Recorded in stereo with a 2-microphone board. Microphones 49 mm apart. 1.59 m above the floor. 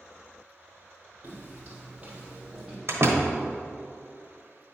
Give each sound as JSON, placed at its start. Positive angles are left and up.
{"t": 1.2, "sound": "footsteps", "side_deg": -40, "distance_m": 3.0}
{"t": 2.9, "sound": "a door slam", "side_deg": -60, "distance_m": 1.1}